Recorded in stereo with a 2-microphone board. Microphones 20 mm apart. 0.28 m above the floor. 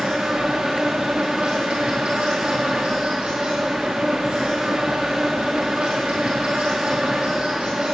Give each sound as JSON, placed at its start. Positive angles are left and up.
{"t": 0.0, "sound": "an insect", "side_deg": -55, "distance_m": 3.0}